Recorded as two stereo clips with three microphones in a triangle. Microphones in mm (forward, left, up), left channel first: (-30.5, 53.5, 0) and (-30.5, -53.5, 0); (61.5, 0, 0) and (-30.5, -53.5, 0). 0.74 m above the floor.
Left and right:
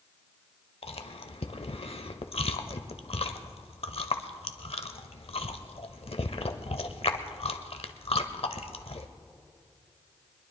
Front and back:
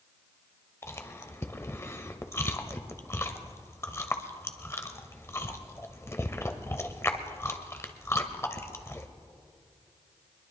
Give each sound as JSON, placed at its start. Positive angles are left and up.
{"t": 0.8, "sound": "chewing", "azimuth_deg": 90, "distance_m": 0.8}